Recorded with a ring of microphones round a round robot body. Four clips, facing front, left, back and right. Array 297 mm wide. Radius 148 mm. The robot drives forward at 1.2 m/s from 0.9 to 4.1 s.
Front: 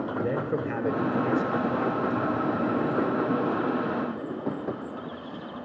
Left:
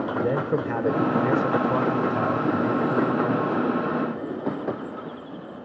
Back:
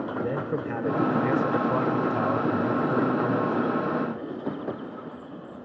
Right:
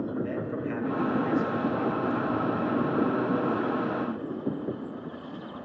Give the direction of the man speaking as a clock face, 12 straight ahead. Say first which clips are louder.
Left 7 dB, front 1 dB; 9 o'clock.